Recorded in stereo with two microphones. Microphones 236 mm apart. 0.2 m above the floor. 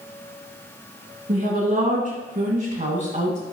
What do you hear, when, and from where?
1.3 s a woman speaking: 35° right (ahead or behind), 2.5 m; by 3.4 s 30° right (ahead or behind), 1.5 m